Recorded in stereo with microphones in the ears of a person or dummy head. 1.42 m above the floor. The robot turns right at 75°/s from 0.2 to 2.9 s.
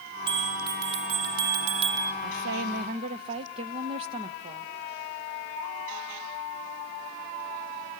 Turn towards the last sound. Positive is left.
turn(degrees=-35)